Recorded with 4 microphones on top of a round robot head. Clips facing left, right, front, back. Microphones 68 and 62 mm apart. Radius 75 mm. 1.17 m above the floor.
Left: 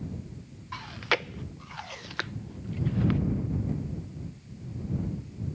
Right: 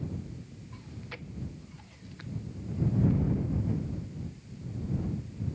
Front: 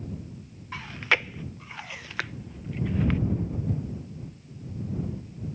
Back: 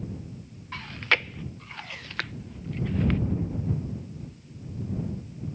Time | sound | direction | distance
0.7 | chewing | 85° left | ?